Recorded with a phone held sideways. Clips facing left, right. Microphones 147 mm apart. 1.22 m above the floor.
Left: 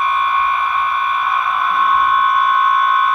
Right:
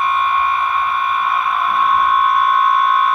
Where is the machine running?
20° right (ahead or behind), 4.5 m.